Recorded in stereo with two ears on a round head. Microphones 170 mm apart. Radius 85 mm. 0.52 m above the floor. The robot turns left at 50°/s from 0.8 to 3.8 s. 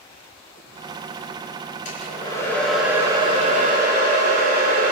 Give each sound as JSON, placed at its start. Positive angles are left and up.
{"t": 1.9, "sound": "a hair dryer", "azimuth_deg": 45, "distance_m": 8.0}